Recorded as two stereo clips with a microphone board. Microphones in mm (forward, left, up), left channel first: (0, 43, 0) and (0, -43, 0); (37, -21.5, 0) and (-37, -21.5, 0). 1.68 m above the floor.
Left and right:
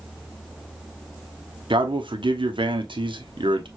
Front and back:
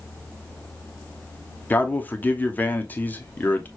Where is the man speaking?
70° right, 1.1 m.